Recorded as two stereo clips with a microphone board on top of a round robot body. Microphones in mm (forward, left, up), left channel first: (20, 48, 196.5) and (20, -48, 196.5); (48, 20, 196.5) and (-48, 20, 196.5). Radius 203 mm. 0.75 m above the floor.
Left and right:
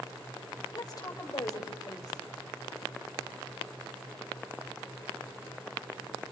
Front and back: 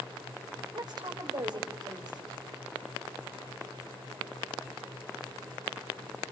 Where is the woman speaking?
140° left, 3.5 m.